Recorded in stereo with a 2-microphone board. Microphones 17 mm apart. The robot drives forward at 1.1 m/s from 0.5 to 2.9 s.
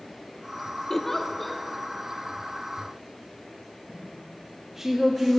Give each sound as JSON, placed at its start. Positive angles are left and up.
{"t": 0.9, "sound": "a giggle", "side_deg": 20, "distance_m": 0.5}
{"t": 3.9, "sound": "a woman speaking", "side_deg": -25, "distance_m": 1.1}